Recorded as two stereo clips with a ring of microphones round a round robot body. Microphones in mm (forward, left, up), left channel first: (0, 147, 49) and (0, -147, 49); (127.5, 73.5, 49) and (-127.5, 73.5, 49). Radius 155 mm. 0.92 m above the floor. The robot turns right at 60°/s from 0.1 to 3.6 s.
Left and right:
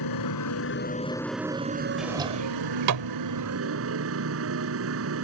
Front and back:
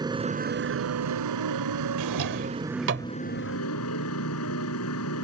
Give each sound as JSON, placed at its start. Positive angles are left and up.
{"t": 0.0, "sound": "a motorcycle", "azimuth_deg": 105}
{"t": 2.0, "sound": "a drawer", "azimuth_deg": 180}